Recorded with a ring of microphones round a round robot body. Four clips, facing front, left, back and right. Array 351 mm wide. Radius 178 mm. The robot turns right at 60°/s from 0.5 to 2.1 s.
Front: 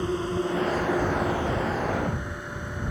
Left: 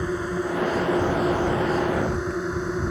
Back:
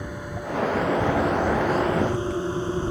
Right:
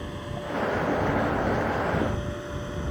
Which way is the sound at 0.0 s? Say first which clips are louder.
Left 9 dB, front 7 dB; 45° left.